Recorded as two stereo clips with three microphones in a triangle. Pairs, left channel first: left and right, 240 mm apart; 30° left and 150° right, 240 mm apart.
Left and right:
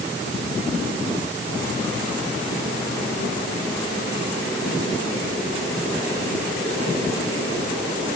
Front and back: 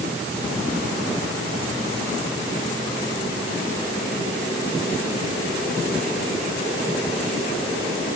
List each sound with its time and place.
Only background noise.